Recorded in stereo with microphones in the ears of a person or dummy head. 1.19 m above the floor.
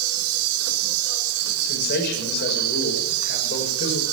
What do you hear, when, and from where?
0.0 s an insect: 80° right, 4.5 m
1.6 s a man speaking: 60° left (ahead or behind), 6 m